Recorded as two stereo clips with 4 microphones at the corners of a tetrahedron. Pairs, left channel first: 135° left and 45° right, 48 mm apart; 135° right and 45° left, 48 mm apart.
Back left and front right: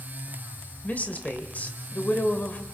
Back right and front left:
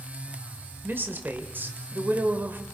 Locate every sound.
0.8 s a woman speaking: 85° left, 2 m